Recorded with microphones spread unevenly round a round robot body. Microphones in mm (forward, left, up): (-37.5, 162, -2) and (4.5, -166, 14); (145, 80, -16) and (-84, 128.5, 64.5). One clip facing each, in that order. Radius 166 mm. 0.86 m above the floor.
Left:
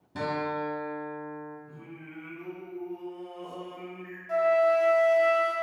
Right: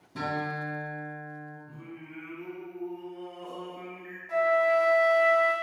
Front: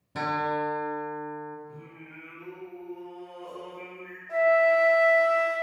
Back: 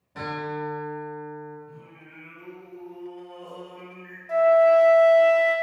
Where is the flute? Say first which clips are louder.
Left 2 dB, back 5 dB; 175° right, 0.7 m.